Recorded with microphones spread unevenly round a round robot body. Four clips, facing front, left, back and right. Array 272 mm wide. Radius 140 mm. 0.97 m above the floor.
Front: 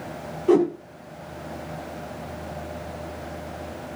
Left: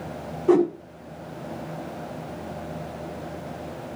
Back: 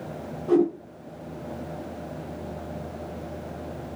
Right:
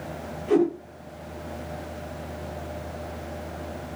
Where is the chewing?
I don't hear chewing.